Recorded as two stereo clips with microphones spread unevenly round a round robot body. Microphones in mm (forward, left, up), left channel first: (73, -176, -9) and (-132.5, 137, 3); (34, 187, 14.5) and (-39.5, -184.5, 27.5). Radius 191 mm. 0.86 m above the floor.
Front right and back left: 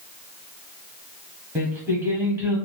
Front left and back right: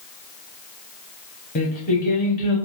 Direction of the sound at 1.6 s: 55° left.